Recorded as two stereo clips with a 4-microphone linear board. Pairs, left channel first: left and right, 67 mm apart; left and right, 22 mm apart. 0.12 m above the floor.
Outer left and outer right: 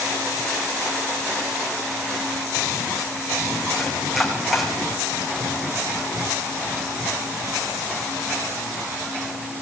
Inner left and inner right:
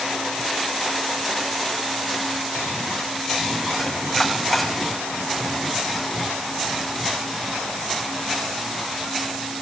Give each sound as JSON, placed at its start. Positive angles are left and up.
{"t": 3.8, "sound": "chopping", "side_deg": 0, "distance_m": 5.5}